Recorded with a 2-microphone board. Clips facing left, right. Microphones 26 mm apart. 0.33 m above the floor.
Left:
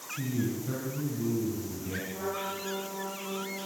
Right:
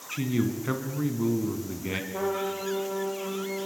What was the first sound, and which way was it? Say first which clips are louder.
A man speaking: right 4 dB; 55° right (ahead or behind).